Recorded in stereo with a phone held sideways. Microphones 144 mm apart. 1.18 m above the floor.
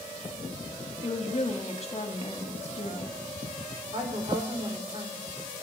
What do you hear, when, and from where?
1.0 s a woman speaking: 45° left (ahead or behind), 1.6 m
3.9 s a woman speaking: 55° right (ahead or behind), 3 m